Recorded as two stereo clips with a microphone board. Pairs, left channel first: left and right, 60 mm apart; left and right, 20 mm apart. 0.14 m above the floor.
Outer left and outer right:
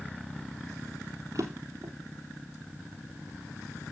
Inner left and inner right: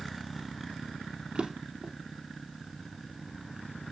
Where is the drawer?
65° right (ahead or behind), 2.5 m.